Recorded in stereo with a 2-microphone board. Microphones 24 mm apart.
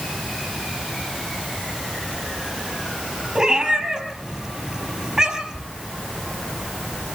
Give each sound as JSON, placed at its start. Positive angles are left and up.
{"t": 3.4, "sound": "a cat meowing", "side_deg": -25, "distance_m": 4.5}